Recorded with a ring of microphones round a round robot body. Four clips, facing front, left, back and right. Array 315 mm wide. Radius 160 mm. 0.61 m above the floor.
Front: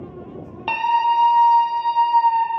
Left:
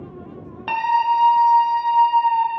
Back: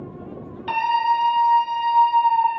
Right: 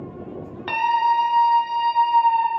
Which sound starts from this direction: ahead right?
A scream, at 0.7 s.